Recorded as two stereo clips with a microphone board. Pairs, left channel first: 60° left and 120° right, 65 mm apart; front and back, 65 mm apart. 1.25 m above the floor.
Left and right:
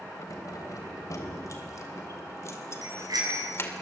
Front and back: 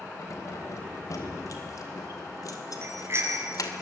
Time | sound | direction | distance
0.2 | keys jangling | 35° left | 4 m
2.8 | a bicycle bell | 130° right | 6.5 m